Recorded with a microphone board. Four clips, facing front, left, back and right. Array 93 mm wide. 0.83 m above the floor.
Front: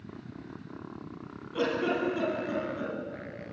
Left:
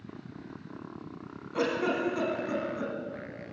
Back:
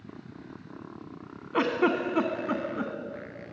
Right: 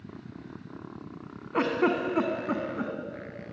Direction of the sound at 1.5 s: 145° right.